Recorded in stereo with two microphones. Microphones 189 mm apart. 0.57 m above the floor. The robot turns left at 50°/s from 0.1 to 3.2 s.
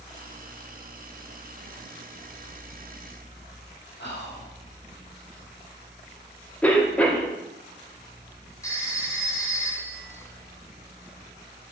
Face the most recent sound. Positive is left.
turn(degrees=15)  # may be behind; listen again after turning